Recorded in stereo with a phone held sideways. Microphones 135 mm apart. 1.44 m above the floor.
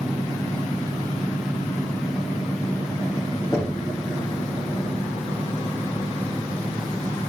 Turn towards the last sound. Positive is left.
turn(degrees=20)  # may be behind; listen again after turning